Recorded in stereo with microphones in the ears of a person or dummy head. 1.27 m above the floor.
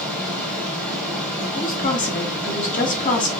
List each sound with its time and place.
0.0 s running water: 5° left (ahead or behind), 2.5 m
1.6 s a woman speaking: 40° left (ahead or behind), 0.8 m